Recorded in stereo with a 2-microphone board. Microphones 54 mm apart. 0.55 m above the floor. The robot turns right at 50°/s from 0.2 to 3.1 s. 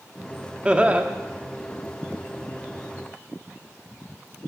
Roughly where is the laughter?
Centre.